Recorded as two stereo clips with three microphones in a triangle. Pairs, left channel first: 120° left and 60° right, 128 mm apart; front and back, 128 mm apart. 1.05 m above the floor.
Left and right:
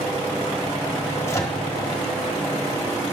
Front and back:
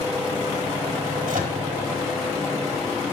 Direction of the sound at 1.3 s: 175° right.